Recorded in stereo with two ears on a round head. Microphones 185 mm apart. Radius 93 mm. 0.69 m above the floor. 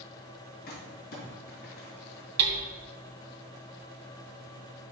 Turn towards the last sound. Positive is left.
turn(degrees=-90)